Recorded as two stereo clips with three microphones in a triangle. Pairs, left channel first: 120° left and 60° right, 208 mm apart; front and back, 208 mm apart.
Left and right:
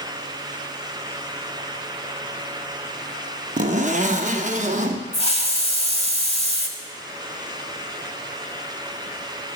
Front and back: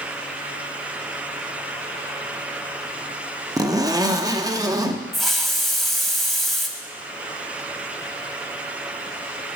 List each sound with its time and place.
3.6 s a zipper: 105° right, 0.6 m
5.1 s a hiss: 90° left, 0.8 m